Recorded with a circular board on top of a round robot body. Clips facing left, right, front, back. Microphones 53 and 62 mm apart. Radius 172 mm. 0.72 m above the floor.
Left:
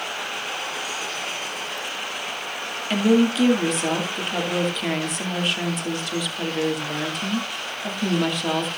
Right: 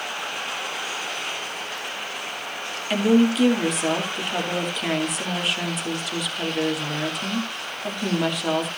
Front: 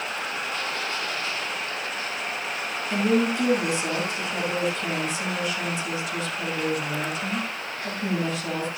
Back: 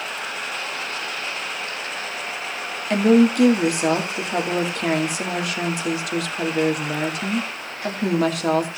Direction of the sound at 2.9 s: Straight behind.